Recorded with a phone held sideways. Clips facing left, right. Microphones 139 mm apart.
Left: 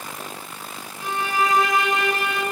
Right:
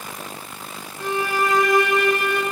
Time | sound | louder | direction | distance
1.0 | a violin | right 1 dB | 70° right (ahead or behind) | 3 m